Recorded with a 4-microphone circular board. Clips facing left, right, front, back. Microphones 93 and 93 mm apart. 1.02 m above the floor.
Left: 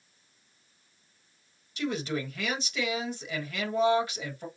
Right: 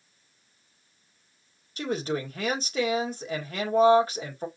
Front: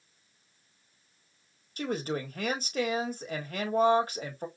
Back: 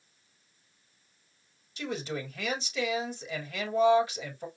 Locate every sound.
1.8 s a woman speaking: 40° right, 1.5 m